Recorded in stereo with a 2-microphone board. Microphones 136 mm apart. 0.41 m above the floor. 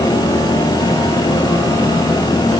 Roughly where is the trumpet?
I don't hear a trumpet.